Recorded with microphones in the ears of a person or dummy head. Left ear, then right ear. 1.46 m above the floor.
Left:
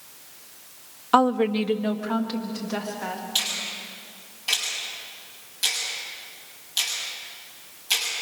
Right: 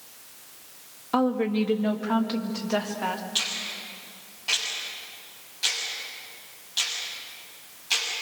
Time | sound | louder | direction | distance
1.1 | a woman speaking | left 5 dB | 40° left (ahead or behind) | 0.8 m
3.4 | a finger snap | left 2 dB | 10° left (ahead or behind) | 7 m